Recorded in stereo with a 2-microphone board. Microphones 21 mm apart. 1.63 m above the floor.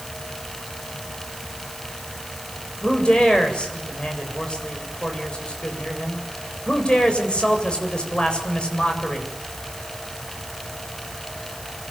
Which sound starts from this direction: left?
A man speaking, at 2.8 s.